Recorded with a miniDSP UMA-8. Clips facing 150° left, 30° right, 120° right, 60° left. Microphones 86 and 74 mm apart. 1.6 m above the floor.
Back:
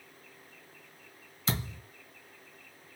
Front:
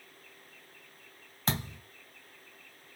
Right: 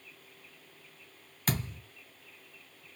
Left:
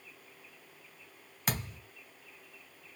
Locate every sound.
1.5 s a thud: 15° right, 2 m